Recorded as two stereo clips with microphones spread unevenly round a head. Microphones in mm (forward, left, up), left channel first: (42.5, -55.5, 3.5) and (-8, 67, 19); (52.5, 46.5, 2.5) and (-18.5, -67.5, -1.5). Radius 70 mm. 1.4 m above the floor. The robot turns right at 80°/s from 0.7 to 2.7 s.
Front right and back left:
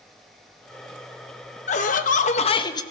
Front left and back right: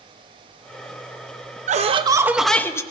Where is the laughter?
95° right, 0.9 m; by 2.8 s 15° right, 0.9 m.